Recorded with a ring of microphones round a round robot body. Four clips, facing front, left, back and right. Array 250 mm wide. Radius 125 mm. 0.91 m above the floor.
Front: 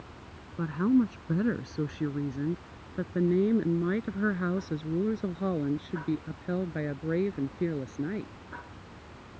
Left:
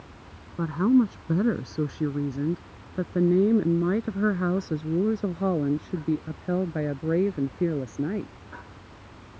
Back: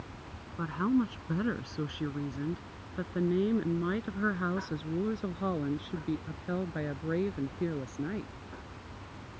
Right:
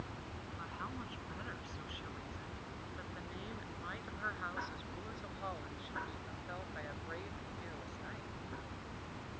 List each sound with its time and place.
0.6 s a woman speaking: 70° left; by 8.3 s 75° left